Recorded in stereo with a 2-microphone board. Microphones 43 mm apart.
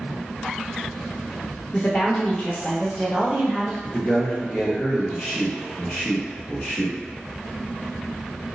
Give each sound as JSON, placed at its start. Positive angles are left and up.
{"t": 1.7, "sound": "a woman speaking", "side_deg": 30, "distance_m": 0.7}
{"t": 3.8, "sound": "a man speaking", "side_deg": 15, "distance_m": 0.9}